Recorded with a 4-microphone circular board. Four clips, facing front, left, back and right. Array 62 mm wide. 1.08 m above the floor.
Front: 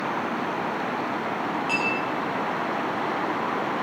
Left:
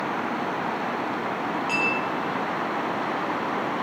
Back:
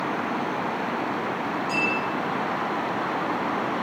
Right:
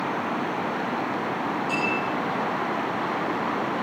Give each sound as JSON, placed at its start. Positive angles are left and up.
{"t": 1.7, "sound": "a clink", "azimuth_deg": 30, "distance_m": 5.5}